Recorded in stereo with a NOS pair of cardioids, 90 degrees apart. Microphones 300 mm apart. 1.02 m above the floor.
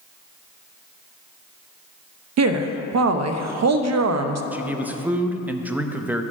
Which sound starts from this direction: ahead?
A man speaking, at 4.5 s.